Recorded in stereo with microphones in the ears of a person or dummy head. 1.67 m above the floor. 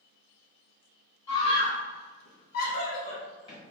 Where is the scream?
30° left (ahead or behind), 0.9 m; by 3.6 s 25° left (ahead or behind), 1.3 m.